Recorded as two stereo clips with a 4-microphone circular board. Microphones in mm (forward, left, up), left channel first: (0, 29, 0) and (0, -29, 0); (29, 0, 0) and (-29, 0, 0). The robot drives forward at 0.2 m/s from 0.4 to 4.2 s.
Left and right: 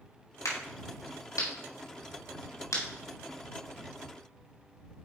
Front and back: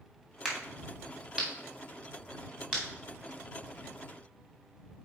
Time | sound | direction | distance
0.5 | a crack | 95° left | 3 m